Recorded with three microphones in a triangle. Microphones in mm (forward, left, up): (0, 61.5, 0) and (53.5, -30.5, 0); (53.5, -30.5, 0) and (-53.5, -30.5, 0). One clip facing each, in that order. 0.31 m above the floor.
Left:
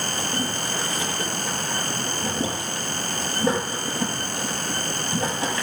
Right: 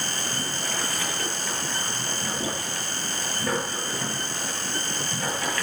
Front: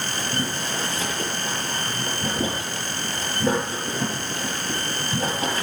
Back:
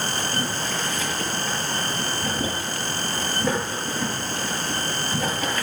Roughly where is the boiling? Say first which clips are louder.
Left 4 dB, even; ahead left.